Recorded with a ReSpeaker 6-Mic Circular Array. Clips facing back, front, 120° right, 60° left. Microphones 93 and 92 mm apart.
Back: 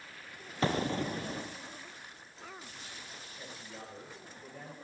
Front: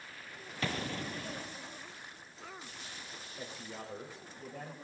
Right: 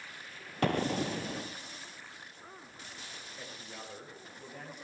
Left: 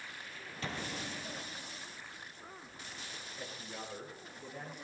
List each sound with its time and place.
0.6 s an explosion: 125° right, 0.7 m
3.4 s a man speaking: 35° right, 6 m